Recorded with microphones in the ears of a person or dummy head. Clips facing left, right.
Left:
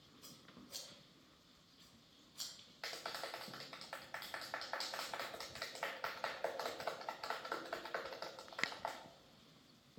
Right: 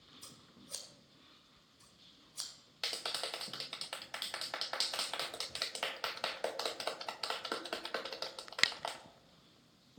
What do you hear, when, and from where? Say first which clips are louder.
0.2 s scissors: left 1 dB; 60° right (ahead or behind), 1.8 m
2.8 s a clap: right 3 dB; 45° right (ahead or behind), 0.7 m